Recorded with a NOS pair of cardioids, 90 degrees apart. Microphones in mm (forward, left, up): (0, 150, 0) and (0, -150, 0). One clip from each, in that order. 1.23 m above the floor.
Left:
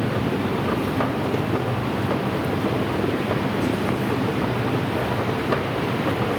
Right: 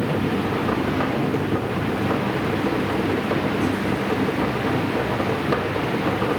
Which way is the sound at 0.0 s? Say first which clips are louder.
Right 1 dB; straight ahead.